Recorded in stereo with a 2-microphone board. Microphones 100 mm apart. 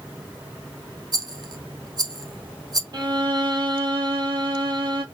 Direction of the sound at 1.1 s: 45° right (ahead or behind).